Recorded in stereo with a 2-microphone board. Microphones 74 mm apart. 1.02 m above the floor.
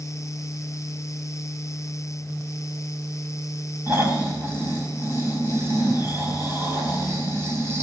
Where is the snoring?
35° right (ahead or behind), 4 m.